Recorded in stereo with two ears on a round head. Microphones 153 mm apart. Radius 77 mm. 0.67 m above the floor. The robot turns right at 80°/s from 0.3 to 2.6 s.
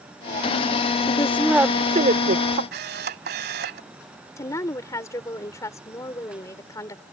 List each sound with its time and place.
1.1 s a woman speaking: 150° left; by 2.6 s 90° right
2.7 s a camera shutter: 60° right (ahead or behind)
4.4 s a woman speaking: 20° left (ahead or behind)